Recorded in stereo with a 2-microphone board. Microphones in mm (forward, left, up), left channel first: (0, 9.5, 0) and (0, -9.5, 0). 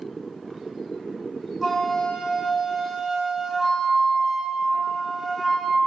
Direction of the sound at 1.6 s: 10° right (ahead or behind).